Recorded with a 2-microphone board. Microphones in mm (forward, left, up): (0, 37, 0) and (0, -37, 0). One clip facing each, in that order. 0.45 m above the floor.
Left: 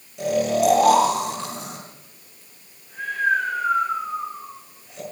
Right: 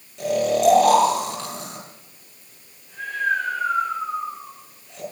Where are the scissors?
No scissors in this recording.